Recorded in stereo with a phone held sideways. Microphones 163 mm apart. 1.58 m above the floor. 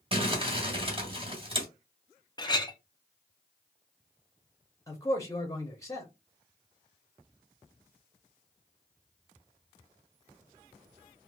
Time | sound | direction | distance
0.1 | crumpling | 35° right (ahead or behind) | 1.3 m
2.4 | a clink | 25° left (ahead or behind) | 0.7 m
4.9 | a man speaking | 20° left (ahead or behind) | 0.8 m